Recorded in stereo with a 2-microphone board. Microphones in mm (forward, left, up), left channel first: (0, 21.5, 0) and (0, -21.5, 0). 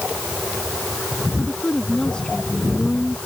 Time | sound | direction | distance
1.4 | a woman speaking | 20° left (ahead or behind) | ?